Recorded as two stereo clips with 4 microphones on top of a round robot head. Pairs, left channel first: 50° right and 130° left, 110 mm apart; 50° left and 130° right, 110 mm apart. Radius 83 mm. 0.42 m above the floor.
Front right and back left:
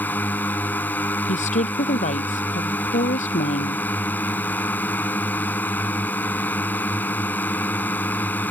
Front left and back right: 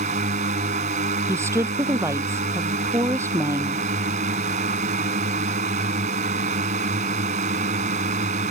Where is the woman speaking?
65° right.